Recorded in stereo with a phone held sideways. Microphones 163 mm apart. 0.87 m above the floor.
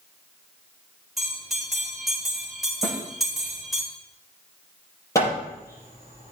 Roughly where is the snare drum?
Centre.